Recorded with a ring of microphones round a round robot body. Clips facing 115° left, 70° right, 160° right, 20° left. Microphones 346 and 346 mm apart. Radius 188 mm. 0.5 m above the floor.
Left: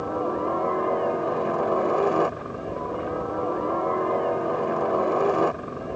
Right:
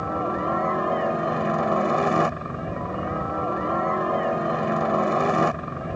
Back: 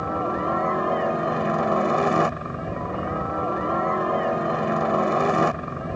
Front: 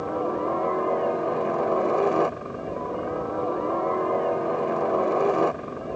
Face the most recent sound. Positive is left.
turn(degrees=-110)